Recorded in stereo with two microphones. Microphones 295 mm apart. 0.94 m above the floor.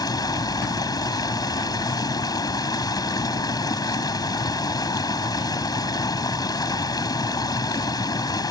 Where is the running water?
15° left (ahead or behind).